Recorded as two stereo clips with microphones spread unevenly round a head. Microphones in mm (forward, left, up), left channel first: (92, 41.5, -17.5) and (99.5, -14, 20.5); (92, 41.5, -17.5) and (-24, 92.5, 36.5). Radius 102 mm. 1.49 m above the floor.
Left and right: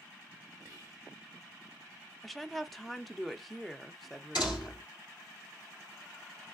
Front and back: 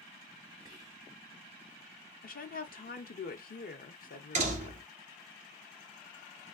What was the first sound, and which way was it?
Whispering, 60° right.